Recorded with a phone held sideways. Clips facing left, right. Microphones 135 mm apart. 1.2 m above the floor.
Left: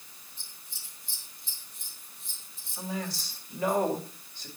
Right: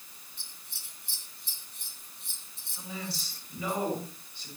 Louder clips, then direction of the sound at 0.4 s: Even; 70° right (ahead or behind).